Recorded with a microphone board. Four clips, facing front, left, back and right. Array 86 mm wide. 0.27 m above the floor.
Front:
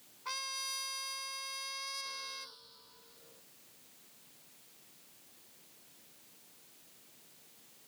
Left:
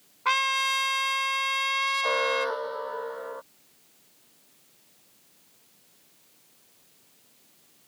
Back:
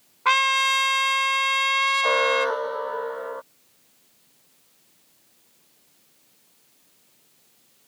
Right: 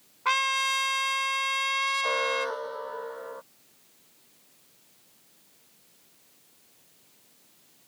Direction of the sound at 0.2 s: 175° left.